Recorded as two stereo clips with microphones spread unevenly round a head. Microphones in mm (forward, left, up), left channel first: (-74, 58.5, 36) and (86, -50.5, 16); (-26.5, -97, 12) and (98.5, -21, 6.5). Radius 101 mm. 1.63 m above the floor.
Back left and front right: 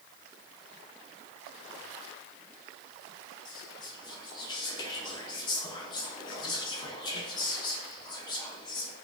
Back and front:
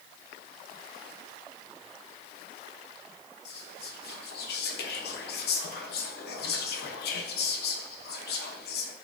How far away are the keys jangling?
No keys jangling in this recording.